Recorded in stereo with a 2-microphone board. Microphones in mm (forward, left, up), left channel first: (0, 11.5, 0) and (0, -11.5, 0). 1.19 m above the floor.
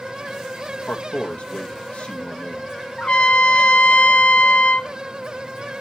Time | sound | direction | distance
0.9 | a man speaking | 65° left (ahead or behind) | 1.9 m
3.0 | a trumpet | 55° left (ahead or behind) | 0.8 m